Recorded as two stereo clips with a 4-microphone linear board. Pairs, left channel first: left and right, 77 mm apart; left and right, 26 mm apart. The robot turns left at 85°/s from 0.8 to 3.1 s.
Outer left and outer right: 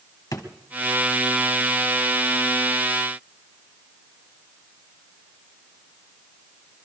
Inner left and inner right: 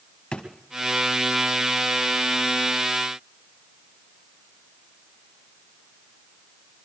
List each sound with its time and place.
0.3 s a drawer: 55° left (ahead or behind), 1.6 m